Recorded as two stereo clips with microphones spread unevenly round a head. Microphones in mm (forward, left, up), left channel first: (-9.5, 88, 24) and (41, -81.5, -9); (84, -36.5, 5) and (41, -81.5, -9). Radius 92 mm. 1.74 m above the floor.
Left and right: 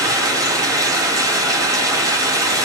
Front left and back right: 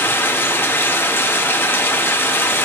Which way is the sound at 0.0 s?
5° left.